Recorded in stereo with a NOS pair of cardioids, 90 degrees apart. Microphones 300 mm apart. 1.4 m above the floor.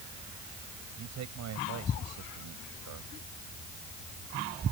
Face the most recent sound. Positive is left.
turn(degrees=-65)